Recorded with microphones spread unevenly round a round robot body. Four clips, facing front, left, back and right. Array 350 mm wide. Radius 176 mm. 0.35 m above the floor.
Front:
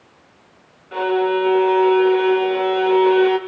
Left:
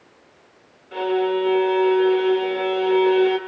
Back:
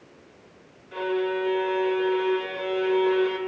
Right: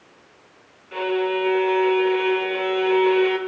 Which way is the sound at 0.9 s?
5° left.